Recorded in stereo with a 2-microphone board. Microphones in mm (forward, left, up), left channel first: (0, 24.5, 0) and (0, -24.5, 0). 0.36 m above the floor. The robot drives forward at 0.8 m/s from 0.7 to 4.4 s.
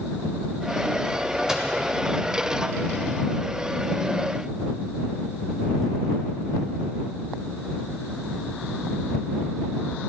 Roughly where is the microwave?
Centre.